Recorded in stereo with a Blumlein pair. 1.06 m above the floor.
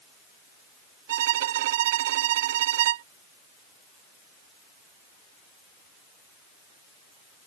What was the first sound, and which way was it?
A violin, 55° right.